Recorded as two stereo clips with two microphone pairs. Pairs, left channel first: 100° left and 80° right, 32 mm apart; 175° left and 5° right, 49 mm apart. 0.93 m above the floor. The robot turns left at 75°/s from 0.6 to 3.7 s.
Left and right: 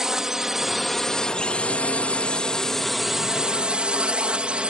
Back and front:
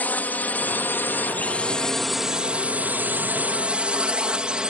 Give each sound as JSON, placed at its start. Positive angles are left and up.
{"t": 0.0, "sound": "a drone", "azimuth_deg": -150}